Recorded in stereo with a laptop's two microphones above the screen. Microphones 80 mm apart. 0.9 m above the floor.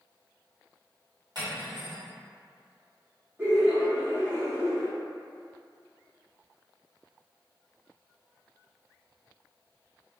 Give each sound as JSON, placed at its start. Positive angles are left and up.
{"t": 1.4, "sound": "cutlery clinking", "side_deg": -65, "distance_m": 1.3}
{"t": 3.4, "sound": "laughter", "side_deg": -30, "distance_m": 0.6}